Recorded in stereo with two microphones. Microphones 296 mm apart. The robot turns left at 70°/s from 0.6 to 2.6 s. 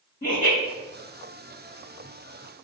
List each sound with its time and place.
0.2 s laughter: 30° left (ahead or behind), 1.5 m